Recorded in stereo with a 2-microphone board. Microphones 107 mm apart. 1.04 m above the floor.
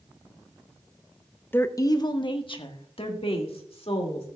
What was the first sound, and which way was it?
A woman speaking, 20° left (ahead or behind).